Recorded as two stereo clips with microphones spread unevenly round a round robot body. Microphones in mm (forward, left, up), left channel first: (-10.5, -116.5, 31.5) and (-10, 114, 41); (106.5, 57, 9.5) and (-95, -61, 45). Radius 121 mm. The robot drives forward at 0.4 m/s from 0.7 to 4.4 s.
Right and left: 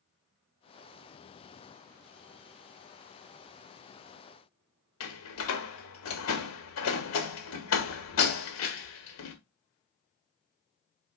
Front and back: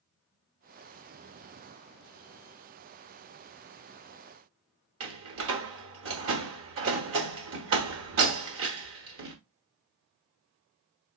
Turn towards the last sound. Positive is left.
turn(degrees=-115)